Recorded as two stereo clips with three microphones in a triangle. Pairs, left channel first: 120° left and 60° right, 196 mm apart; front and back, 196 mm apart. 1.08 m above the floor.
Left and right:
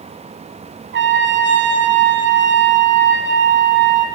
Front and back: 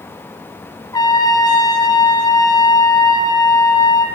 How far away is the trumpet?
About 0.5 m.